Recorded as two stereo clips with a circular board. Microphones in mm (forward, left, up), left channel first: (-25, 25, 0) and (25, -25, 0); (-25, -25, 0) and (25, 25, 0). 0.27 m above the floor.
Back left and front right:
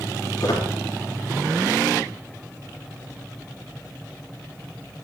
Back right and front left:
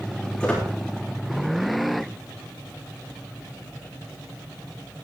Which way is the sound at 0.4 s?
150° left.